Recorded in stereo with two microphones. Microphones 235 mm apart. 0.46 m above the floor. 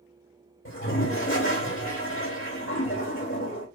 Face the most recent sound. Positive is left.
turn(degrees=55)  # may be behind; listen again after turning